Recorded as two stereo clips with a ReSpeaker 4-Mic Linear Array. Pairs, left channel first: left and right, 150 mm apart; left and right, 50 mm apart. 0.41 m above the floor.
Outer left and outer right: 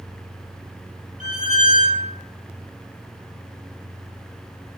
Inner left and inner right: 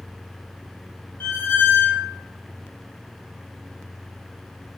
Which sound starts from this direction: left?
A squeak, at 1.2 s.